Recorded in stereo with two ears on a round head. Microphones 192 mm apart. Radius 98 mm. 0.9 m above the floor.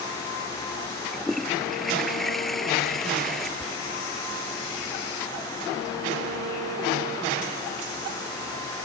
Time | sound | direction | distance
1.1 | a toilet flushing | centre (ahead or behind) | ?
3.6 | whispering | centre (ahead or behind) | ?